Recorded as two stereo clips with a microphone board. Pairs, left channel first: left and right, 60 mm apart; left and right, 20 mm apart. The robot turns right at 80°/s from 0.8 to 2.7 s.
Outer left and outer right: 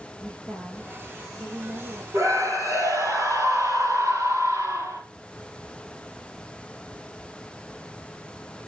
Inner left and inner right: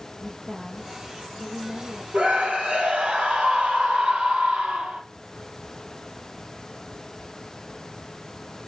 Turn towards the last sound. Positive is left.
turn(degrees=-70)